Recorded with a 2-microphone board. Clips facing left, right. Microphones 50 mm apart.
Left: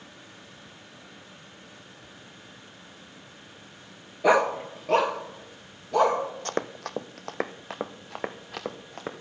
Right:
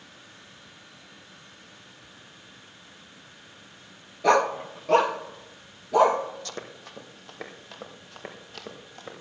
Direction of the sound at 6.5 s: 40° left (ahead or behind).